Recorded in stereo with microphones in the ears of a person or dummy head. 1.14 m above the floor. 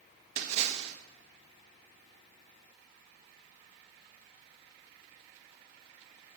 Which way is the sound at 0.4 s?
45° right (ahead or behind).